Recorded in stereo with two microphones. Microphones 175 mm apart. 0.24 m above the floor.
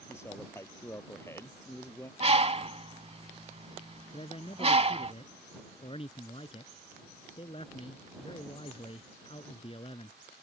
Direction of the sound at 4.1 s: 35° left (ahead or behind).